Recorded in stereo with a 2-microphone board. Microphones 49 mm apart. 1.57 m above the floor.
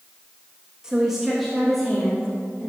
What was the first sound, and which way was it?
A woman speaking, 15° right (ahead or behind).